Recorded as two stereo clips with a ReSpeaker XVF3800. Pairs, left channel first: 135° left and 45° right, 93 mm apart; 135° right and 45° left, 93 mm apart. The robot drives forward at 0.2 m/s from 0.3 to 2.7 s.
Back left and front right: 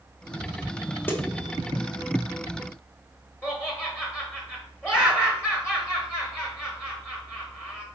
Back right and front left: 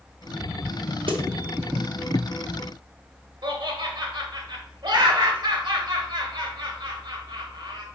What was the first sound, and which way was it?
A snare drum, 65° left.